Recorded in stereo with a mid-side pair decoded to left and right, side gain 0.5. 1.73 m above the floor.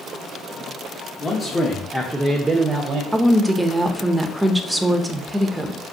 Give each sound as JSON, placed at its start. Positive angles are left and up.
{"t": 1.2, "sound": "a man speaking", "azimuth_deg": 25, "distance_m": 1.1}
{"t": 3.1, "sound": "a woman speaking", "azimuth_deg": -15, "distance_m": 0.6}